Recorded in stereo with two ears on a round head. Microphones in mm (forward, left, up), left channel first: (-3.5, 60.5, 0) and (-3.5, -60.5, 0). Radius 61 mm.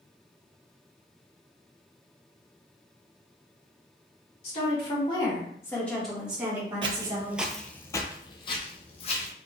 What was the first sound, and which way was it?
A woman speaking, 50° left (ahead or behind).